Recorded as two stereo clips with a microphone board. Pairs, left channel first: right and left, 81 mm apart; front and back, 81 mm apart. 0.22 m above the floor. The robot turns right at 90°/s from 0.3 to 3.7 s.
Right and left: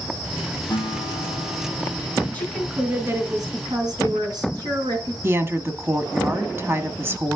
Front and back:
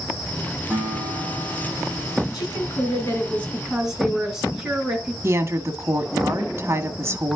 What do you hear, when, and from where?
0.7 s a guitar: 120° right, 6.5 m; by 2.2 s 20° left, 6.5 m
2.3 s a woman speaking: 25° right, 2.5 m; by 5.1 s 100° left, 2.5 m
5.2 s a woman speaking: 140° left, 1.3 m